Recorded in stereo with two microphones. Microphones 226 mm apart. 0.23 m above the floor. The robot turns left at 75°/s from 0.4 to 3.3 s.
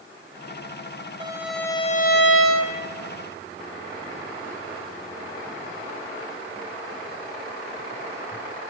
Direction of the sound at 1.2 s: 155° right.